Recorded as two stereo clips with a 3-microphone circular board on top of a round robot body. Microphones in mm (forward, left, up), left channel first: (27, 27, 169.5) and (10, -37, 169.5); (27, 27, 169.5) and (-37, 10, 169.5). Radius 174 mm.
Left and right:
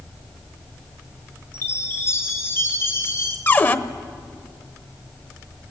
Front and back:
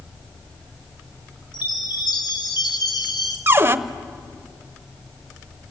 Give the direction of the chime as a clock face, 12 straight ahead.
11 o'clock.